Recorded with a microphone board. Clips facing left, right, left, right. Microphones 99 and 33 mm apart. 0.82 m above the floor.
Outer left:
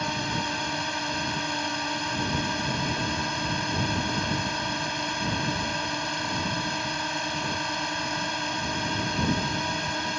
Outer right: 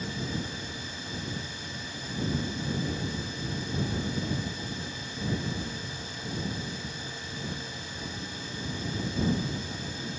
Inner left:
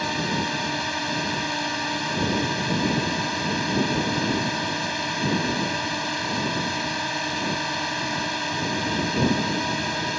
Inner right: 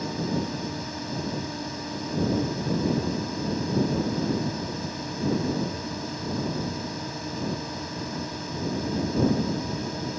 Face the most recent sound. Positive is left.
turn(degrees=70)  # may be behind; listen again after turning